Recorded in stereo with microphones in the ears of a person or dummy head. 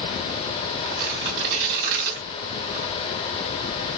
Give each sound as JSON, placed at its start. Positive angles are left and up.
{"t": 0.8, "sound": "tearing paper", "side_deg": -65, "distance_m": 3.0}